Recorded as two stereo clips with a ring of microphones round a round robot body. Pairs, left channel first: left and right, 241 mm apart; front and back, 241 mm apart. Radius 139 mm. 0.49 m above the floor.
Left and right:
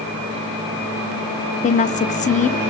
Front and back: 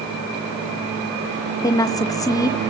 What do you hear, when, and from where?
1.6 s a woman speaking: 65° left, 0.9 m